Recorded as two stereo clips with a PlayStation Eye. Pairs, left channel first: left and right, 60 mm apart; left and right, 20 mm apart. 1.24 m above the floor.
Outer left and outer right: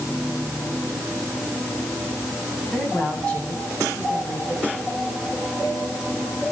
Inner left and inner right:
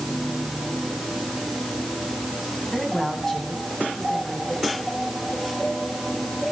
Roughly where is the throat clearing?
I don't hear throat clearing.